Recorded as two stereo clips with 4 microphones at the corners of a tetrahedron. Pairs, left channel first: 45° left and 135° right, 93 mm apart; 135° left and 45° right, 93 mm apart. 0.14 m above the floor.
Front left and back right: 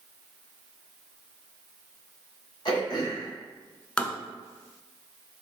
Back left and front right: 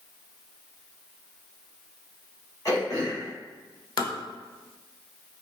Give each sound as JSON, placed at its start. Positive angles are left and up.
{"t": 2.6, "sound": "throat clearing", "azimuth_deg": 85, "distance_m": 1.7}
{"t": 4.0, "sound": "tapping", "azimuth_deg": 120, "distance_m": 0.5}